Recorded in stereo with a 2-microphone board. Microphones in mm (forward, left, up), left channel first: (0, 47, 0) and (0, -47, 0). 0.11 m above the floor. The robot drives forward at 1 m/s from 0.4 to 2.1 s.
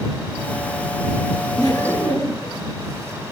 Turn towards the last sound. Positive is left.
turn(degrees=40)  # may be behind; listen again after turning